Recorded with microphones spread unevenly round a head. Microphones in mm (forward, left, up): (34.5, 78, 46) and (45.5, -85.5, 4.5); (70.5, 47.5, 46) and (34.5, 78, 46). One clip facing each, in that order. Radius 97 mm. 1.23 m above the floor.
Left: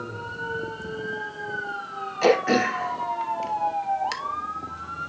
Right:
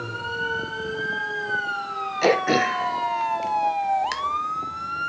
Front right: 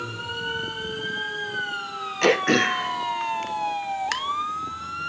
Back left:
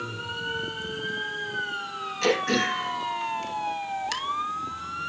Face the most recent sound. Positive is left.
turn(degrees=-10)